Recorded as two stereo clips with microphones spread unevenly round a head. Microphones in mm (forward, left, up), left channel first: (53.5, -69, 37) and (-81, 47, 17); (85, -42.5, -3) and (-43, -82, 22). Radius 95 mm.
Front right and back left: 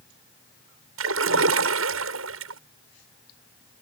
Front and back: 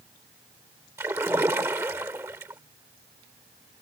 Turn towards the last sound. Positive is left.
turn(degrees=120)